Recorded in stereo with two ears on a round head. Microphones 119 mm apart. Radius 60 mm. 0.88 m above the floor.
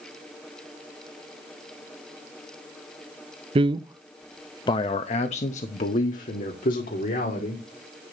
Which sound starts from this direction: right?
A man speaking, at 3.5 s.